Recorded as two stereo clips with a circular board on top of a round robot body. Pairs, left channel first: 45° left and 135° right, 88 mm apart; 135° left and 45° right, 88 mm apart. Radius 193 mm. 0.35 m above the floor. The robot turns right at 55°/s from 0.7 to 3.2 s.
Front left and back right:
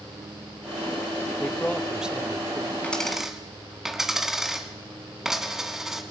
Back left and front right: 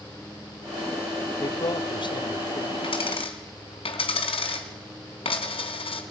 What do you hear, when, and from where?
1.4 s a man speaking: 110° left, 1.5 m; by 2.7 s straight behind, 1.5 m
2.8 s a dropped coin: 120° left, 2 m; by 6.0 s 140° left, 2 m